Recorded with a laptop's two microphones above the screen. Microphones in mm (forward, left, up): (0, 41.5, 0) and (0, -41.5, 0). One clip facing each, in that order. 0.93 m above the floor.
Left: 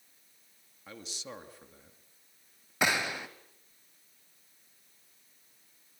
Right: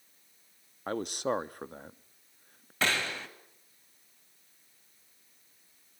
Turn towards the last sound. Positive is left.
turn(degrees=15)  # may be behind; listen again after turning